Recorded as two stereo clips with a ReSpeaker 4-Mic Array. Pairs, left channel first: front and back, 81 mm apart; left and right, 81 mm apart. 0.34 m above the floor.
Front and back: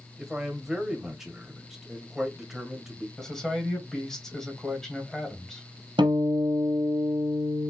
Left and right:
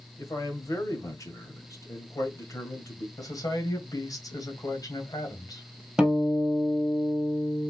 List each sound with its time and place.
0.2 s a man speaking: 95° left, 1.8 m
3.2 s a man speaking: 80° left, 2.5 m
6.0 s a guitar: 175° right, 1.6 m